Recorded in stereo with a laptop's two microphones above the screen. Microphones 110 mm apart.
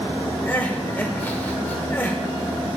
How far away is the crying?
About 0.7 m.